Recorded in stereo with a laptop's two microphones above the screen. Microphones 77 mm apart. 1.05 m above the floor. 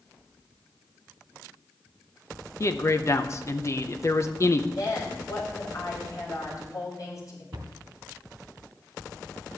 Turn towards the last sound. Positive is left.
turn(degrees=-75)  # may be behind; listen again after turning